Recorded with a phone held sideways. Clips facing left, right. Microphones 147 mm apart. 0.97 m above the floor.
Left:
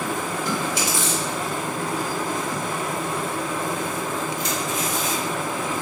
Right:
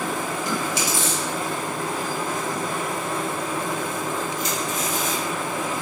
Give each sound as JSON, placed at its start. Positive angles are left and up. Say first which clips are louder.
{"t": 0.5, "sound": "chewing", "louder": "left 1 dB", "side_deg": 55, "distance_m": 1.6}